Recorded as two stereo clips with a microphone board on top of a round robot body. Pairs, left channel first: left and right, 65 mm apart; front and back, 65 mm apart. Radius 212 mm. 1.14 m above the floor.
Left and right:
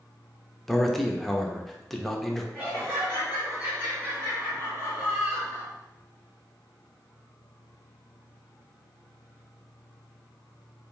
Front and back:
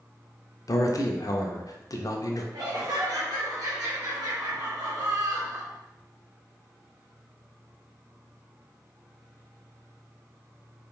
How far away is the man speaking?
About 0.6 m.